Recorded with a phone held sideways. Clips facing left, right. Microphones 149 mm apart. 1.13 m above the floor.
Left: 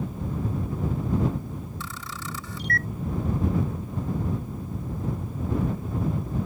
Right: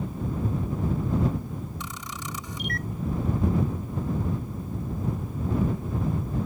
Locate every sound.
1.8 s a camera shutter: 20° right (ahead or behind)